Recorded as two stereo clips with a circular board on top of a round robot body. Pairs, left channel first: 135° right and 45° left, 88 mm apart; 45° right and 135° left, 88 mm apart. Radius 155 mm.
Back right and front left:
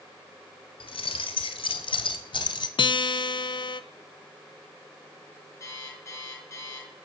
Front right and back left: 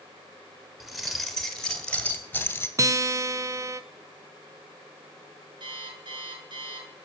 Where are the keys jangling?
135° right, 2 m; by 2.7 s 110° right, 1.5 m.